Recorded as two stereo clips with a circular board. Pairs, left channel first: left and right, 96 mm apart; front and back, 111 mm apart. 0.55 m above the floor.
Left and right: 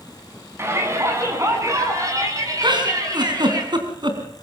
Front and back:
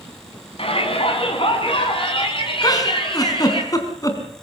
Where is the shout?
30° right, 6 m; by 3.6 s 40° right, 8.5 m.